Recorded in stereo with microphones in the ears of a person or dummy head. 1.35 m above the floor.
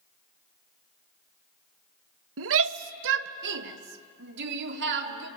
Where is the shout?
80° right, 1.1 m; by 5.3 s 65° right (ahead or behind), 3.5 m.